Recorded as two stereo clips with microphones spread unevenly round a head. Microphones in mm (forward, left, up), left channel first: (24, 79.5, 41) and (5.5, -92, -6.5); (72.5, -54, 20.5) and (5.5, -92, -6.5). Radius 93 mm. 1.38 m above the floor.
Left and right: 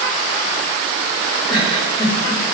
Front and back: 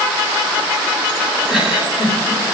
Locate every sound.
1.5 s a giggle: 25° left, 8.5 m